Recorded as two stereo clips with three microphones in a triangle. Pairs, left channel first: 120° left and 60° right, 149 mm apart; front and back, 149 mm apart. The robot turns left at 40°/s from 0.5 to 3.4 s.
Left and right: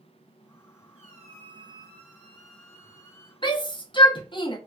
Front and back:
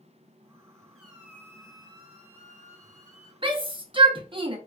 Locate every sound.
0.9 s a squeak: 90° right, 0.7 m; by 3.3 s 175° left, 0.7 m
3.4 s a shout: 155° left, 0.7 m